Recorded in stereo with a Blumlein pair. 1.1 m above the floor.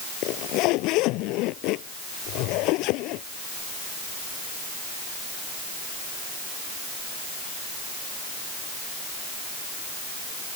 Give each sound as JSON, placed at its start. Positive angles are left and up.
{"t": 0.2, "sound": "a zipper", "azimuth_deg": 40}